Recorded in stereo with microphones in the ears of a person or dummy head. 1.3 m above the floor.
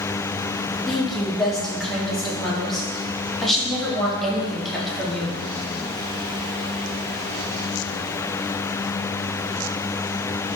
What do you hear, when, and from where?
0.9 s a woman speaking: 5° left (ahead or behind), 0.7 m